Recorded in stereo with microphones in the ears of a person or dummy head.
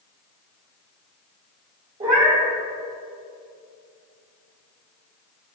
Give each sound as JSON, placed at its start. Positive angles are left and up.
{"t": 2.0, "sound": "a cat meowing", "side_deg": -30, "distance_m": 2.5}